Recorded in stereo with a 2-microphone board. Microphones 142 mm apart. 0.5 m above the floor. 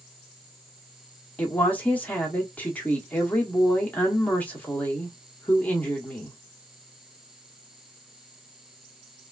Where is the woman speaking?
10° left (ahead or behind), 0.9 m.